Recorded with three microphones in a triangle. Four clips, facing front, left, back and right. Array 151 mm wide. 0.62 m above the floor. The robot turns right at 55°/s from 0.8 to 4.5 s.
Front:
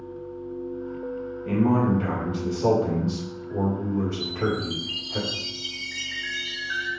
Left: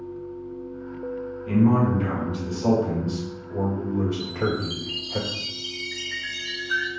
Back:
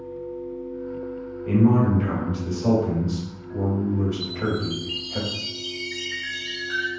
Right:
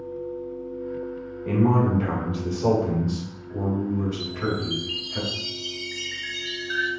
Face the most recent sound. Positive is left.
turn(degrees=65)